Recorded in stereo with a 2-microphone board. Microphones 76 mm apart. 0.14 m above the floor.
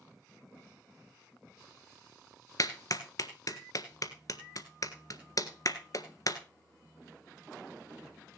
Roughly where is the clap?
Left.